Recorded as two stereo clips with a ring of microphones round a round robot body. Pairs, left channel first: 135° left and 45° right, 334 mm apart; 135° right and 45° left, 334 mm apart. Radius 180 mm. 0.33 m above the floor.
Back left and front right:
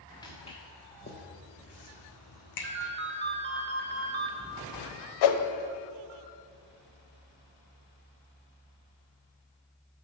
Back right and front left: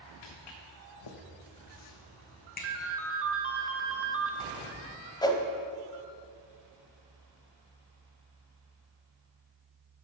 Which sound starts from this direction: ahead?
A ringtone, at 2.6 s.